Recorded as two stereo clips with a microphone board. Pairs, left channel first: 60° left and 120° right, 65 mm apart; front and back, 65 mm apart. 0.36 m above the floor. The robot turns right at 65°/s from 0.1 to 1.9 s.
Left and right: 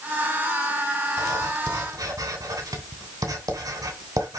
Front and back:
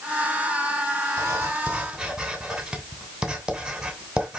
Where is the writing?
150° right, 3 m; by 4.4 s 100° right, 3 m.